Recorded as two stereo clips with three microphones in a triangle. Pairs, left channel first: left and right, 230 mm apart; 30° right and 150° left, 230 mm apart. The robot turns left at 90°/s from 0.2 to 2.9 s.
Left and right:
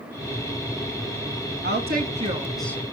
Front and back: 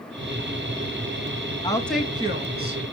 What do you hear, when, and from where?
1.6 s a woman speaking: 95° right, 1.9 m; by 2.8 s 160° left, 1.9 m